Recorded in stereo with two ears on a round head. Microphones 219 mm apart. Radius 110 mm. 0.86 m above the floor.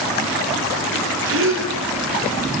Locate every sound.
1.2 s a gasp: 55° right (ahead or behind), 9.5 m